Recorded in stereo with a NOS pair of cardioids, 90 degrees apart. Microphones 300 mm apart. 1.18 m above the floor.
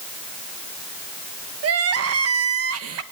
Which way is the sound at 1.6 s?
55° right.